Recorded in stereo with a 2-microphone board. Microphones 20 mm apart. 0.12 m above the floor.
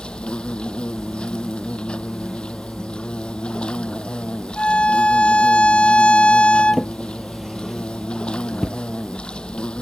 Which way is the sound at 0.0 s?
50° left (ahead or behind).